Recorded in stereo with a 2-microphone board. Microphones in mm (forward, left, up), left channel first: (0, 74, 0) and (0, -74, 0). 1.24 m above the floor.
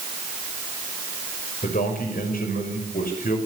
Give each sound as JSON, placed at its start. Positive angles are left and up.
{"t": 1.6, "sound": "a man speaking", "side_deg": 75, "distance_m": 6.0}